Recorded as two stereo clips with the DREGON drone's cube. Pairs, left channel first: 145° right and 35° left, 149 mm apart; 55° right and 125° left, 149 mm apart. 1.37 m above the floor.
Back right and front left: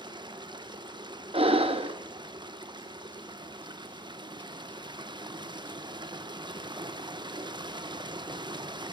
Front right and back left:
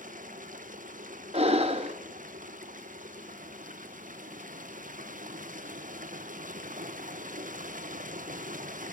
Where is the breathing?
80° left, 1.2 m.